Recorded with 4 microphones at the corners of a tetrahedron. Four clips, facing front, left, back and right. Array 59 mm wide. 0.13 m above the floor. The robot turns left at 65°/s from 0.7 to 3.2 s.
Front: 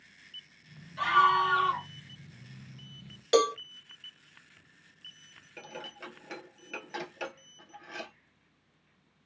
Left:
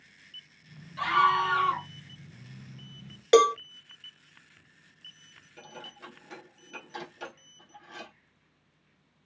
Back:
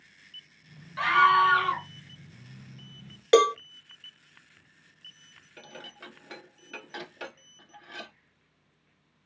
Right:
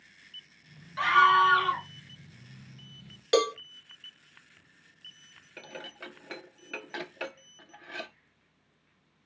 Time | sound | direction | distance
1.0 | a scream | 140° right | 2.5 m
3.3 | a cowbell | 140° left | 0.9 m
5.6 | dishes clattering | 75° right | 1.3 m